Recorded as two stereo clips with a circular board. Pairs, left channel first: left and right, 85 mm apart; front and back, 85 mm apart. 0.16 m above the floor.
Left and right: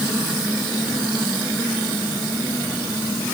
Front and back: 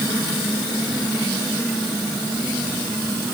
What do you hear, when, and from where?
Only background noise.